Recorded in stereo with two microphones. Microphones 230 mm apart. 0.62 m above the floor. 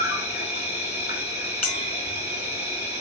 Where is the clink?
5° left (ahead or behind), 4 m.